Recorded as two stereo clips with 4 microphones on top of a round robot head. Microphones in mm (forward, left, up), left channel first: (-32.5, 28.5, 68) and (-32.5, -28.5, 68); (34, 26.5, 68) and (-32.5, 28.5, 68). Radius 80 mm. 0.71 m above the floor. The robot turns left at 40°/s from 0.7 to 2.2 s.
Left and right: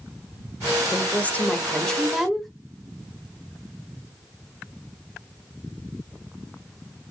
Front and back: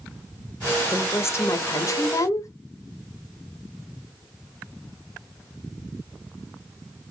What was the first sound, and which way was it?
A woman speaking, 50° left.